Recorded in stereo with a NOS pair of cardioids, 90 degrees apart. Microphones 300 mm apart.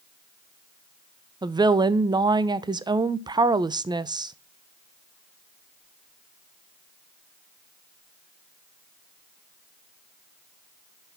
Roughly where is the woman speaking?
Ahead.